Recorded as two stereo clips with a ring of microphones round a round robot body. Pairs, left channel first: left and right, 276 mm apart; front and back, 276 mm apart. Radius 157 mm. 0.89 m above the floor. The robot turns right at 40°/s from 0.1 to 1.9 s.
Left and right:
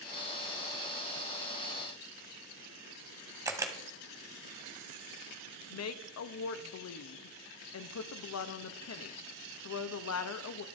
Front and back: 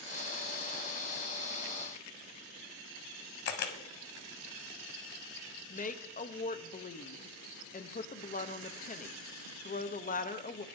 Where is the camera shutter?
15° right, 1.0 m.